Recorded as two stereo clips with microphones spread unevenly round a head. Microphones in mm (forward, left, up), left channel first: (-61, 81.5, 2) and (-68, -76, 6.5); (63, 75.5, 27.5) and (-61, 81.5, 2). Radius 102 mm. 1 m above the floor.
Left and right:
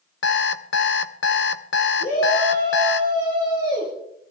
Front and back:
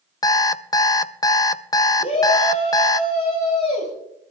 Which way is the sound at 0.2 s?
55° left.